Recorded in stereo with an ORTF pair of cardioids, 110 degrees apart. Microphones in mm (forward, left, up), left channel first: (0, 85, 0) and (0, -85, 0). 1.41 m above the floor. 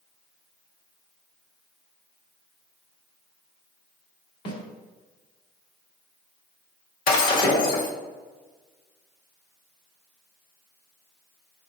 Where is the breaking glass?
55° left, 1.7 m.